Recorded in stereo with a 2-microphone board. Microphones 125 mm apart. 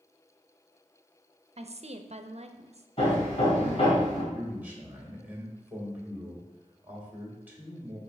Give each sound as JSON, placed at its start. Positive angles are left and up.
{"t": 1.6, "sound": "a woman speaking", "side_deg": -55, "distance_m": 0.5}
{"t": 3.0, "sound": "hammering", "side_deg": 55, "distance_m": 2.5}
{"t": 4.3, "sound": "a man speaking", "side_deg": -15, "distance_m": 1.9}